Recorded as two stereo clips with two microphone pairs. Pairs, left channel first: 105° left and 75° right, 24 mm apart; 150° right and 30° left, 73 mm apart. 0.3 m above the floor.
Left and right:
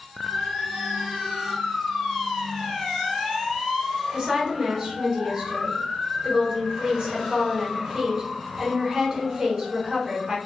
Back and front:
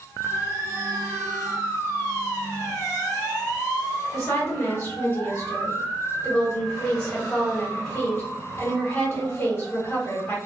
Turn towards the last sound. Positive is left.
turn(degrees=-150)